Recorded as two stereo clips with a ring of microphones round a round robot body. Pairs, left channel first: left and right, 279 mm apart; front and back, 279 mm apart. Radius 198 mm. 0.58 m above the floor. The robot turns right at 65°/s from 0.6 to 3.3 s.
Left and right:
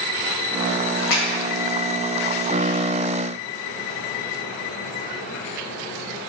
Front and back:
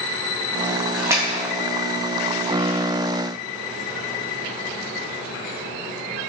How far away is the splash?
About 1.4 m.